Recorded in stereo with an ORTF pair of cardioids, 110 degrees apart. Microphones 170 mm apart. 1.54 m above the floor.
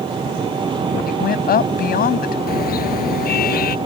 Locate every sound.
0.0 s an engine running: 25° right
1.1 s a woman speaking: 55° left
2.5 s a car horn: 55° left